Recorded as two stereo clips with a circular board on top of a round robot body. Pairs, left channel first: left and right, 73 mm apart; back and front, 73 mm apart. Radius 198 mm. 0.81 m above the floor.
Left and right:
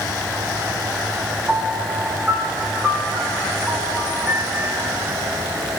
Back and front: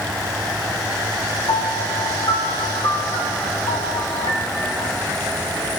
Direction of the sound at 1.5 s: 165° right.